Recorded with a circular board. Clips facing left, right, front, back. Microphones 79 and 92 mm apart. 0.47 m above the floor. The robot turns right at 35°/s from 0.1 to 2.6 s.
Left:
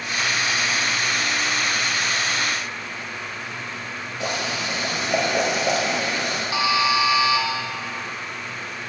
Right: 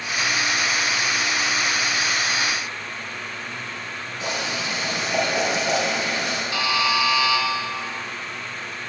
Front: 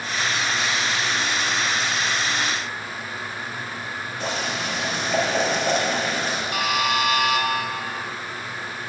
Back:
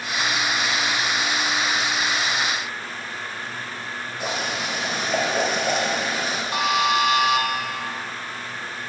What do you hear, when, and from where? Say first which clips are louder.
4.2 s boiling: left 1 dB, even; 105° left, 1.6 m
6.5 s a buzzer: left 2 dB, back 3 dB; 145° left, 0.7 m